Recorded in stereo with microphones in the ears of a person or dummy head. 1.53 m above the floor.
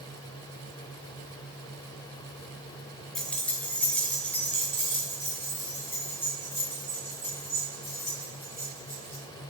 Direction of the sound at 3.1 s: Centre (ahead or behind).